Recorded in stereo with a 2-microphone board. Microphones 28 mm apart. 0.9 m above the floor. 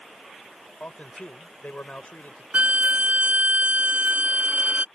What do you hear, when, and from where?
0.8 s a man speaking: 55° left (ahead or behind)
2.5 s a violin: 65° right (ahead or behind)